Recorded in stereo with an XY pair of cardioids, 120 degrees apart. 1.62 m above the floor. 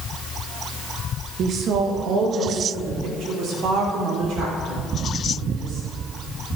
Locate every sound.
1.4 s a woman speaking: 60° right, 1.5 m; by 5.9 s 70° right, 8 m